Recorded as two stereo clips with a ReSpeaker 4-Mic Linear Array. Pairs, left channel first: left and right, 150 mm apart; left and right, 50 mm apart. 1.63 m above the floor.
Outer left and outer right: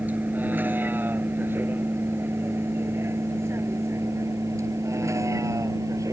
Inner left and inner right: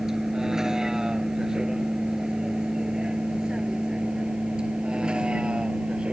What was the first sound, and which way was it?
A vehicle, 10° right (ahead or behind).